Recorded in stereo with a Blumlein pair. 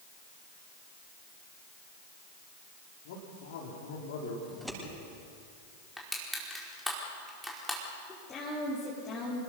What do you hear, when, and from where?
3.0 s a man speaking: 55° left, 4 m
4.5 s scissors: straight ahead, 9.5 m
6.0 s crushing: 5° left, 5 m
8.1 s a woman speaking: 20° left, 5 m